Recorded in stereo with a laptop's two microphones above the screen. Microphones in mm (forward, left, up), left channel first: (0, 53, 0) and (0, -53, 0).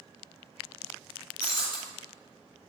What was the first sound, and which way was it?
Breaking glass, 40° left (ahead or behind).